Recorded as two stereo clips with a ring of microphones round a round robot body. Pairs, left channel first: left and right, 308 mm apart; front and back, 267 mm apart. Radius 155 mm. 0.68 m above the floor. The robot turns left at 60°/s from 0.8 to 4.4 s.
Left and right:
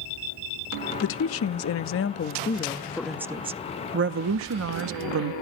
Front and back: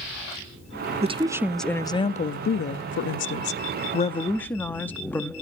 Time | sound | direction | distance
1.0 | a woman speaking | 125° left | 0.6 m